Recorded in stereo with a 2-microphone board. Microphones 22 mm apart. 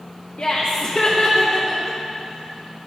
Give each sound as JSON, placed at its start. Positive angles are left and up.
{"t": 0.4, "sound": "laughter", "side_deg": 70, "distance_m": 0.8}